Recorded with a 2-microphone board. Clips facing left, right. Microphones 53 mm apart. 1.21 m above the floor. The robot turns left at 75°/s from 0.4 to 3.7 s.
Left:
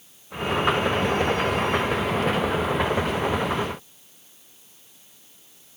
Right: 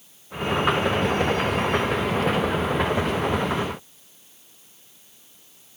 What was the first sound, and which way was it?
Only background noise.